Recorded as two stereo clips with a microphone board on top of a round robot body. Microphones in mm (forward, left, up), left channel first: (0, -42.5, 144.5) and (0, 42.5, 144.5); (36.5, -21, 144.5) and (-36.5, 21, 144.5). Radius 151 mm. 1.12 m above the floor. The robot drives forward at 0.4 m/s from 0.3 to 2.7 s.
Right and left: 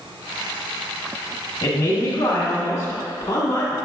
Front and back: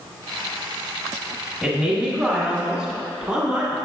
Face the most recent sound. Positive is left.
turn(degrees=-140)